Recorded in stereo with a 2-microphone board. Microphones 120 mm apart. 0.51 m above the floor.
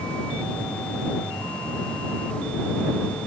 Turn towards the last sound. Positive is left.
No sound to turn to.